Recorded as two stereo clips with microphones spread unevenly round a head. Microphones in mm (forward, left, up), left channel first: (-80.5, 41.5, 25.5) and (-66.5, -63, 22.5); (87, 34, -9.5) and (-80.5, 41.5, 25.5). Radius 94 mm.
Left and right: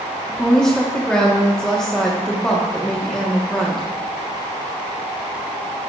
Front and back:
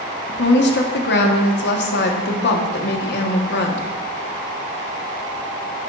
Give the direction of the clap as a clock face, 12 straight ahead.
I don't hear a clap.